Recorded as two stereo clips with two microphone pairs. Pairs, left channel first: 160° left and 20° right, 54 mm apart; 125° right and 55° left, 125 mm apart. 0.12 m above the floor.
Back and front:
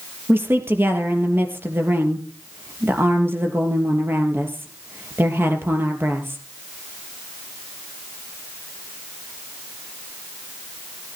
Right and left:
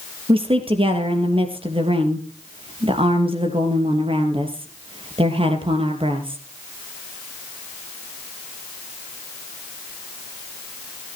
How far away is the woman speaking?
About 3.5 m.